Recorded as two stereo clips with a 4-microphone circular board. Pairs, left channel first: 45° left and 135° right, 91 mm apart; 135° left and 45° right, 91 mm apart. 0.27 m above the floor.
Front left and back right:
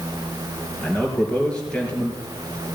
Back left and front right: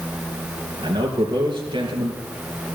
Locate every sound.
0.8 s a man speaking: 35° right, 4.5 m